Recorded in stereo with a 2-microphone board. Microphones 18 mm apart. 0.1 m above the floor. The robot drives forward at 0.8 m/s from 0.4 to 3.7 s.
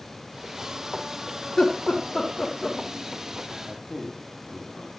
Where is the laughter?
60° left (ahead or behind), 4.5 m; by 2.8 s 50° left (ahead or behind), 5.5 m.